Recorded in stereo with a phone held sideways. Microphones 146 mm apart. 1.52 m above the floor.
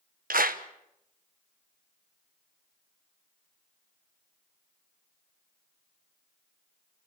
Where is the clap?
80° right, 1.1 m.